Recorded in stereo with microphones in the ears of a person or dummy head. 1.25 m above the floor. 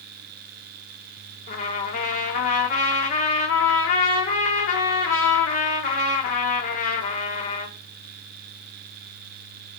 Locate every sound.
1.5 s a trumpet: 55° left (ahead or behind), 1.6 m